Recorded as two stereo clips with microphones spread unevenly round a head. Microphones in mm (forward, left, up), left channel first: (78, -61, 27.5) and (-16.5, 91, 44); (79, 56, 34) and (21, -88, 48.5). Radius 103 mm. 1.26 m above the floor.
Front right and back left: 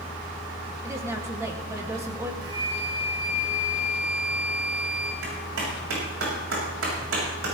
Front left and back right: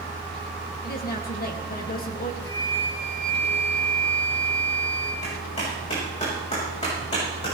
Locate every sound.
0.8 s a woman speaking: 45° left, 2.5 m
2.4 s a flute: 95° left, 2.5 m
5.2 s a clap: 130° left, 7 m